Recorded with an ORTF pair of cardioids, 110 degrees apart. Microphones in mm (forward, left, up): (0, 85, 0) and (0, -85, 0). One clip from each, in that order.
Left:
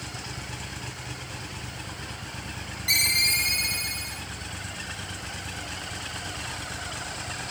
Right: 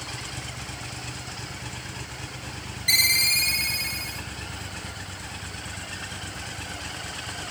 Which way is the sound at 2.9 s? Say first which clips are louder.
Right 2 dB; 15° right.